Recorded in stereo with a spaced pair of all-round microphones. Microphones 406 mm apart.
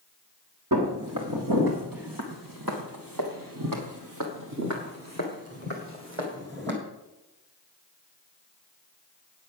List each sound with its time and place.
0.7 s footsteps: 50° right (ahead or behind), 2.5 m; by 6.8 s 25° right (ahead or behind), 3 m